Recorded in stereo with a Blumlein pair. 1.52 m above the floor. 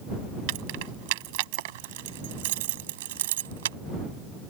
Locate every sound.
0.5 s keys jangling: 45° right; by 3.8 s 60° right